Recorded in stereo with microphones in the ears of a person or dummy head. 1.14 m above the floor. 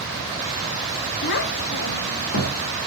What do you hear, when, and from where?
1.2 s a child speaking: 60° left (ahead or behind), 0.9 m; by 2.6 s 55° left (ahead or behind), 1.9 m